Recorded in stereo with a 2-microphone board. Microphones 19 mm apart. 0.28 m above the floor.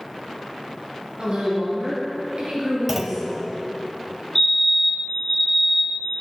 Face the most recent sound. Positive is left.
turn(degrees=20)  # may be behind; listen again after turning